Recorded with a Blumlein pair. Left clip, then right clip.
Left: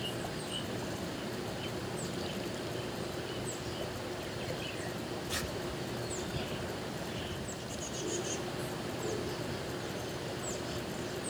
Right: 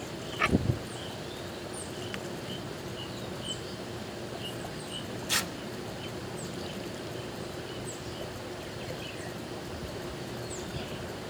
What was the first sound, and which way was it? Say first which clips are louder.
Tearing paper: right 9 dB; 55° right.